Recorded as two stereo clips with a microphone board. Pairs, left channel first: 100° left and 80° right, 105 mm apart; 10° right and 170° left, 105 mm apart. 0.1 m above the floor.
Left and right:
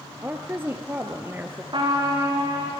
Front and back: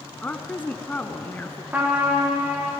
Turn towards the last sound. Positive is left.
turn(degrees=-115)